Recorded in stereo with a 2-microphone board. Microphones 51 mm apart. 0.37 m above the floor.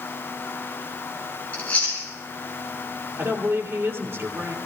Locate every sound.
1.5 s chewing: 25° left (ahead or behind), 7 m
3.2 s a woman speaking: 40° right (ahead or behind), 8 m